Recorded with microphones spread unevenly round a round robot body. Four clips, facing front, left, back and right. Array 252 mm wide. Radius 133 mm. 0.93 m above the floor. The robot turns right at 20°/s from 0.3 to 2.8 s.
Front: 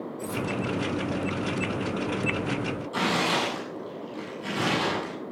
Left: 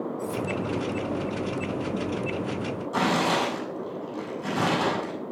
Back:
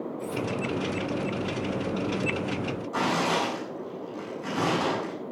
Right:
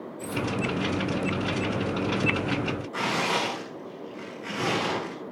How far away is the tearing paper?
About 7.5 m.